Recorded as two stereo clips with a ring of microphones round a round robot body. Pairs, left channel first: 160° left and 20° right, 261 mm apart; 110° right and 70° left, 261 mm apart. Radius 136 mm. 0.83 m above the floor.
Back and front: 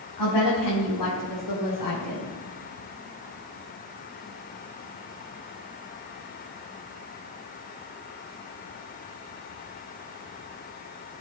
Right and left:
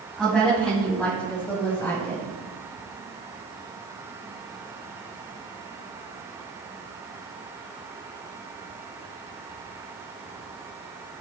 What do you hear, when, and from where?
0.2 s a woman speaking: 155° left, 5 m; by 2.3 s 165° left, 5.5 m